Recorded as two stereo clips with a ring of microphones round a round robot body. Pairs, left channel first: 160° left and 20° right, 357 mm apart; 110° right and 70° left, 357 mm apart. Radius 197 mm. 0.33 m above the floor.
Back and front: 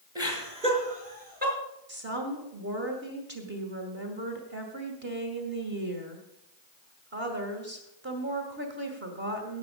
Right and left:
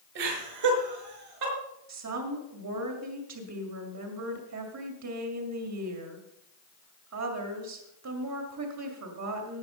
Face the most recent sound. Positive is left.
turn(degrees=35)